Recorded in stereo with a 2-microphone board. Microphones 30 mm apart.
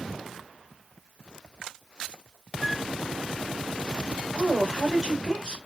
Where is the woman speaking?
20° right (ahead or behind), 2 m.